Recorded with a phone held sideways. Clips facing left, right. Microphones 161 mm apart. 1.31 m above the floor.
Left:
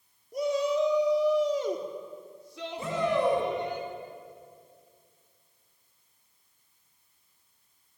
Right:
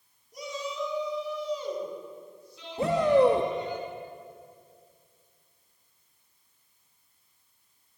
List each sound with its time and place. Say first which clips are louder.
0.3 s a shout: left 10 dB; 55° left (ahead or behind), 3 m; by 3.8 s 65° left (ahead or behind), 5 m
2.8 s a shout: right 6 dB; 65° right (ahead or behind), 2.5 m